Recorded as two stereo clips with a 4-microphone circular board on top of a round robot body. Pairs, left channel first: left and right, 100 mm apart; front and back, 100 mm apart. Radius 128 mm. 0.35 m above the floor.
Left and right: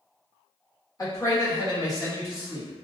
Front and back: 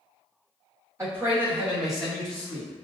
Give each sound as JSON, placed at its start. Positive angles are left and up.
{"t": 1.0, "sound": "a man speaking", "azimuth_deg": 125, "distance_m": 1.6}